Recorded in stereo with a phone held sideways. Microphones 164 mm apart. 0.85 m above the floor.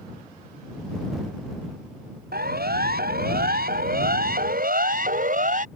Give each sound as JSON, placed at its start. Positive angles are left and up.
{"t": 2.3, "sound": "a siren", "side_deg": -80}